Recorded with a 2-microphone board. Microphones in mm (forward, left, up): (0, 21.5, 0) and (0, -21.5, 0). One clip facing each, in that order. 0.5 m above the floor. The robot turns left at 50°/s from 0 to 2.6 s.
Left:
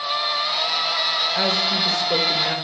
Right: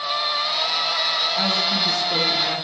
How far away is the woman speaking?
About 1.6 m.